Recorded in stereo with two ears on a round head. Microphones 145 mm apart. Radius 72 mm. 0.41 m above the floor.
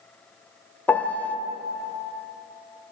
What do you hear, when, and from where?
0.9 s a piano: 10° left (ahead or behind), 0.5 m